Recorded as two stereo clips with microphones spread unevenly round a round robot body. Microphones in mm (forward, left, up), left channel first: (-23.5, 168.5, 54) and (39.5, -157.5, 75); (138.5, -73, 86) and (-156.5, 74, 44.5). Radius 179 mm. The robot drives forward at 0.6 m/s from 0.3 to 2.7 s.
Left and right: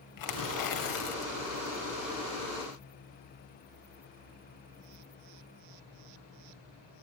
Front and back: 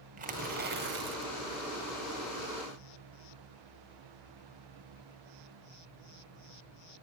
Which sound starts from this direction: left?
Tearing paper, at 0.2 s.